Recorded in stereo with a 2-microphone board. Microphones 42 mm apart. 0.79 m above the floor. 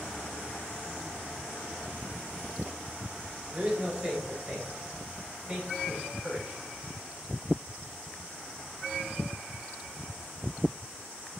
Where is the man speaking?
35° right (ahead or behind), 4 m.